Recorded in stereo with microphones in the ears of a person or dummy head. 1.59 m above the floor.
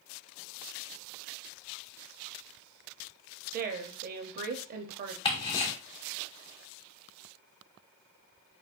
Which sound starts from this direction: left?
Ticking, at 5.2 s.